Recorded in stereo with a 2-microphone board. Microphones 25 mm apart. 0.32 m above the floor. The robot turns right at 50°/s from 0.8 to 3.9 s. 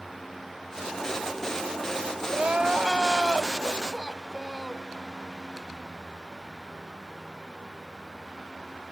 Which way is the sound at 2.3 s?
70° right.